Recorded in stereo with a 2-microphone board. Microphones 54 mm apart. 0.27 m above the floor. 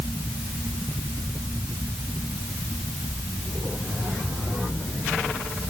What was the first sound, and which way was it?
Only background noise.